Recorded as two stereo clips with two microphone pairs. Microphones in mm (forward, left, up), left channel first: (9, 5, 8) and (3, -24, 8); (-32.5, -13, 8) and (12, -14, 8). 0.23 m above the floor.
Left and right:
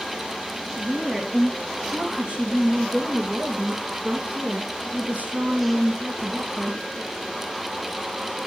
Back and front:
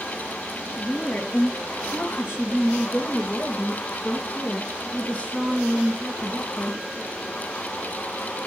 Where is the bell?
I don't hear a bell.